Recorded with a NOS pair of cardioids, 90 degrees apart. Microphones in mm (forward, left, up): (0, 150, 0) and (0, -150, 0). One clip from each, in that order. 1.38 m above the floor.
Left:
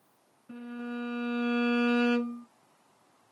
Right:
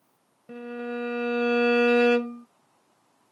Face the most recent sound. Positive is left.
turn(degrees=-70)